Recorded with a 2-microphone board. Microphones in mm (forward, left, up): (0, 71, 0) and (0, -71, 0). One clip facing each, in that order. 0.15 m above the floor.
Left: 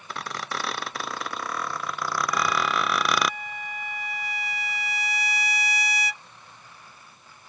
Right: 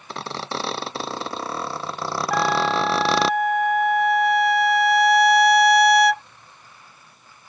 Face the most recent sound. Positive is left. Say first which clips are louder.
# right 7 dB
turn(degrees=-60)  # may be behind; listen again after turning